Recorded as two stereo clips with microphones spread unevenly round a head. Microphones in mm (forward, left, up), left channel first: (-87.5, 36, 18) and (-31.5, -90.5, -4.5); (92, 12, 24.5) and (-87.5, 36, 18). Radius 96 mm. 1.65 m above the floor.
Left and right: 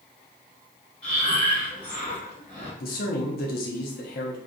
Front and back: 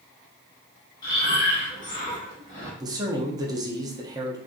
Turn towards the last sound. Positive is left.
turn(degrees=100)